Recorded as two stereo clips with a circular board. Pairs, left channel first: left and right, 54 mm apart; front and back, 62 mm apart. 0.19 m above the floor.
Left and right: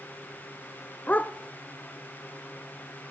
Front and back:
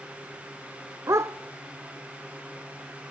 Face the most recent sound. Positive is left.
turn(degrees=150)